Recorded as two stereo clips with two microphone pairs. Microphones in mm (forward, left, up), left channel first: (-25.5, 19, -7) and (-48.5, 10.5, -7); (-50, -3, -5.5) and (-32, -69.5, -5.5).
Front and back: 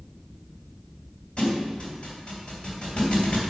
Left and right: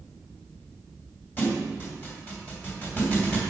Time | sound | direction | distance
1.4 | a thud | 55° left | 2 m